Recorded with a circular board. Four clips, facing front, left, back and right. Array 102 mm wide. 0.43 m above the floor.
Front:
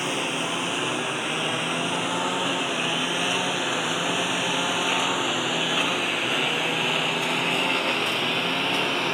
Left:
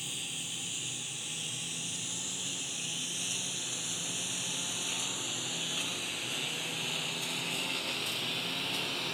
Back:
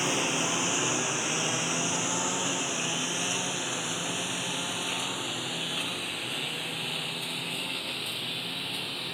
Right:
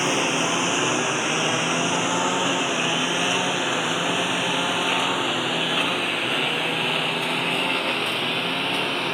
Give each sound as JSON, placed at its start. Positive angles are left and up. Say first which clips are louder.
{"t": 0.0, "sound": "a lawn mower", "louder": "right 25 dB, front 2 dB", "azimuth_deg": -85}